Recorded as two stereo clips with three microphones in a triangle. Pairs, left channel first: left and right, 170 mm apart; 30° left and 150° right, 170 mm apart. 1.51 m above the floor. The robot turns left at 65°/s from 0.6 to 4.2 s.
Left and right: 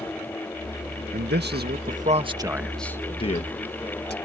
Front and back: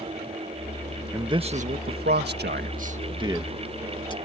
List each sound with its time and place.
1.1 s a man speaking: 75° right; by 4.2 s 90° left